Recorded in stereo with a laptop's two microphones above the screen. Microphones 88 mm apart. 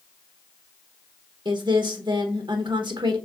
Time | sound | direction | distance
1.4 | a woman speaking | 55° right (ahead or behind) | 1.0 m